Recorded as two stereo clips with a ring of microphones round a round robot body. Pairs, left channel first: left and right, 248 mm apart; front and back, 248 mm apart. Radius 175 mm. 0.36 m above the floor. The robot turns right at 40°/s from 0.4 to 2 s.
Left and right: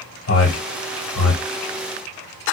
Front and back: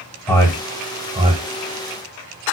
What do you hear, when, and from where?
0.3 s a man speaking: 80° left, 1.5 m; by 1.4 s 120° left, 1.5 m